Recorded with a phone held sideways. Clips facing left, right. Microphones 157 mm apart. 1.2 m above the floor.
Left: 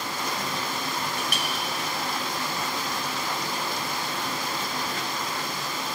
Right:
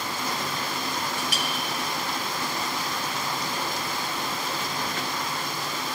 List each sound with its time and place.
1.2 s a clink: 60° left (ahead or behind), 0.8 m